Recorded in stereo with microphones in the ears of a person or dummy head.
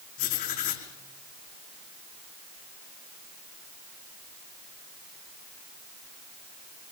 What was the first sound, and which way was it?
Writing, 50° left (ahead or behind).